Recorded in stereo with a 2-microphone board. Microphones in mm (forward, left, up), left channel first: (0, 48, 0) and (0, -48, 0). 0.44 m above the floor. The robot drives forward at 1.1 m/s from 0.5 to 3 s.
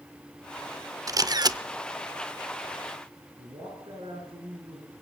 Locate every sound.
1.1 s a camera shutter: 35° right (ahead or behind), 0.7 m; by 1.6 s 40° right (ahead or behind), 0.7 m
3.4 s a man speaking: 75° right (ahead or behind), 7.5 m